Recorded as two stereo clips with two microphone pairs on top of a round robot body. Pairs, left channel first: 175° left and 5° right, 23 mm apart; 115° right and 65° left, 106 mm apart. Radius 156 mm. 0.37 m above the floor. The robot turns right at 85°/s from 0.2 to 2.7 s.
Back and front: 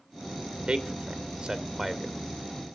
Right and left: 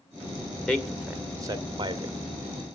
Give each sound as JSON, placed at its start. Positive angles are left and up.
{"t": 0.7, "sound": "a man speaking", "azimuth_deg": -45, "distance_m": 1.8}